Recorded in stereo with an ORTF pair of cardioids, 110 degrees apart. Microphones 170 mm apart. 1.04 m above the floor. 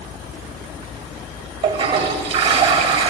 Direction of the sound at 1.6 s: 35° right.